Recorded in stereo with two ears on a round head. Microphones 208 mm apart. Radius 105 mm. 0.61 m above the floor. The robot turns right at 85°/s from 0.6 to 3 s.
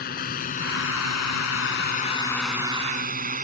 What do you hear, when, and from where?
0.0 s a drone: 40° left (ahead or behind); by 3.4 s 35° right (ahead or behind)